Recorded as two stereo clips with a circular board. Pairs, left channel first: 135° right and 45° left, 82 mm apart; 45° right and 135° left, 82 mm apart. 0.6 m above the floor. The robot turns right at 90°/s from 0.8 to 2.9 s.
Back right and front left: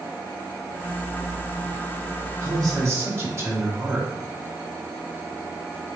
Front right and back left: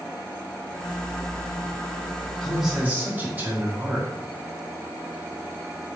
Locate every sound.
2.4 s a man speaking: 35° left, 1.3 m; by 4.1 s 80° left, 1.3 m